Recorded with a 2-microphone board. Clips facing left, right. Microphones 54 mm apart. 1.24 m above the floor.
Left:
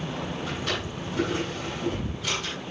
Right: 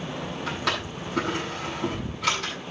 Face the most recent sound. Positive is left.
turn(degrees=-85)